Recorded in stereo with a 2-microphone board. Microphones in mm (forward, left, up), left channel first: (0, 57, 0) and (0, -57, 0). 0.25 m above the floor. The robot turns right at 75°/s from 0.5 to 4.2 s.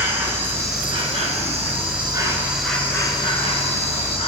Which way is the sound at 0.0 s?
160° right.